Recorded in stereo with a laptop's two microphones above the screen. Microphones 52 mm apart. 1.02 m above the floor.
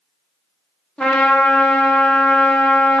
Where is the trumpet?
20° left (ahead or behind), 0.6 m.